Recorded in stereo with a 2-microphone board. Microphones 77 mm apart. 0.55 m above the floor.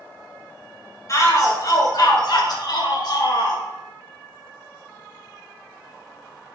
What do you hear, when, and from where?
1.1 s a shout: 40° left (ahead or behind), 2.5 m; by 3.6 s 55° left (ahead or behind), 2 m